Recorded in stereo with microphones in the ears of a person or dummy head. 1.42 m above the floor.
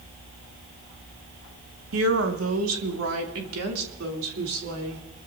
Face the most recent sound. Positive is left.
turn(degrees=-75)  # may be behind; listen again after turning